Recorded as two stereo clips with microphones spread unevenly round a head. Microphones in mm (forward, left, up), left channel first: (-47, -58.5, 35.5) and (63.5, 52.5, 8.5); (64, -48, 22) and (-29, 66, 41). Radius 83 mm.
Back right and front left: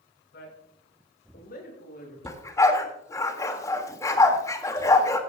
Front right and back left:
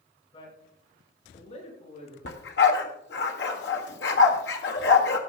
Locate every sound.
0.3 s a man speaking: 110° right, 6 m; by 2.1 s 95° right, 8 m
2.2 s a dog barking: 70° right, 1.7 m